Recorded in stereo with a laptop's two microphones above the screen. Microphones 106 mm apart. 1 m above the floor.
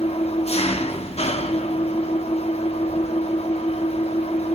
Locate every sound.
0.0 s an engine running: 75° left (ahead or behind), 1.0 m